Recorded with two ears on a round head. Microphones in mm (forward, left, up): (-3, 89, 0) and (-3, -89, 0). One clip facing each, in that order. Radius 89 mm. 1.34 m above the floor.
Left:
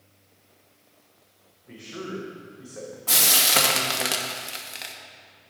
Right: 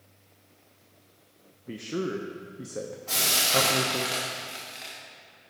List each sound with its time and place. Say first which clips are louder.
1.7 s a man speaking: right 5 dB; 45° right (ahead or behind), 0.7 m
3.1 s frying: left 4 dB; 65° left (ahead or behind), 1.2 m